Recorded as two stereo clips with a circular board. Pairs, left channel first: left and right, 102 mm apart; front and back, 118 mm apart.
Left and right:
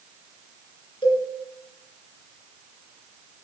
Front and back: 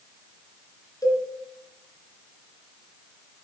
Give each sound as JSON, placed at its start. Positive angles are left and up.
{"t": 1.0, "sound": "a cowbell", "azimuth_deg": 60, "distance_m": 3.0}